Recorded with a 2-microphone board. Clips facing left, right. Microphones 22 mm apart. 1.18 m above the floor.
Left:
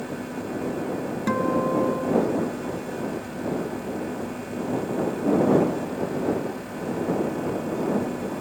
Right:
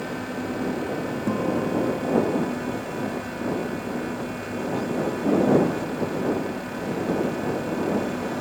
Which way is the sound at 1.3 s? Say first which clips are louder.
Left 3 dB; 60° left (ahead or behind).